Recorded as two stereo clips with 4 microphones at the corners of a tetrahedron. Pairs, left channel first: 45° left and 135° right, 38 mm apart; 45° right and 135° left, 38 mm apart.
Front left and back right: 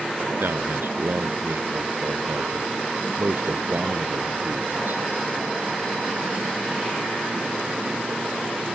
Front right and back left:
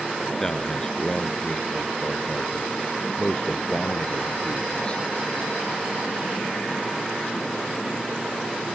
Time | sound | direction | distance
0.4 | a man speaking | 120° right | ?